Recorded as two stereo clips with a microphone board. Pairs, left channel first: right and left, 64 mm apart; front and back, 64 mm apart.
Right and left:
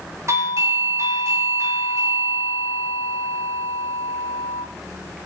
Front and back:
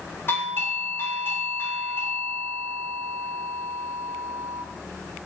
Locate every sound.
0.3 s a doorbell: 50° left, 4 m